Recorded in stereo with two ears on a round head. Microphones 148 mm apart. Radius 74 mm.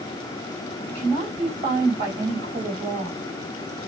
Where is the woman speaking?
35° right (ahead or behind), 3 m.